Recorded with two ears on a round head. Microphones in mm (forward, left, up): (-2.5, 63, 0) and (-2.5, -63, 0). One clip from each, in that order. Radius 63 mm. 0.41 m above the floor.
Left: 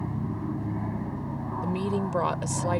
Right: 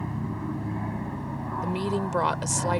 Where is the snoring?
I don't hear snoring.